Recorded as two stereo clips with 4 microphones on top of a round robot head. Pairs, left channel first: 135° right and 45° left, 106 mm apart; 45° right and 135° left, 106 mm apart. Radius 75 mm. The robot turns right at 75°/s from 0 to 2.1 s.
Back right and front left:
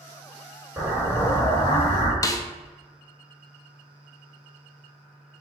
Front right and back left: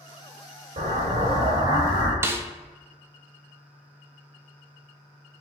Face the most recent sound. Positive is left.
turn(degrees=-175)